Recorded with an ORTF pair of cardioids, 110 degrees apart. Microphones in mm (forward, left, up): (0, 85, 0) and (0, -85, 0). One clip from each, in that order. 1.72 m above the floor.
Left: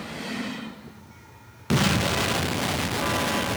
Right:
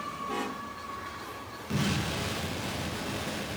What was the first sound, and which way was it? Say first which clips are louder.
An explosion: left 9 dB; 55° left.